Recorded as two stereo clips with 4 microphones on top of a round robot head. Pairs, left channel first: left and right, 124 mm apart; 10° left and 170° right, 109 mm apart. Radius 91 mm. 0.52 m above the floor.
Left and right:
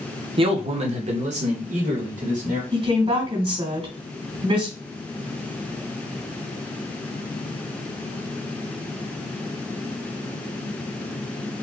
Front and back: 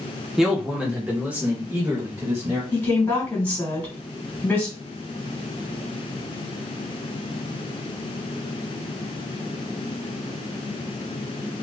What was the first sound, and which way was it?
A man speaking, 80° right.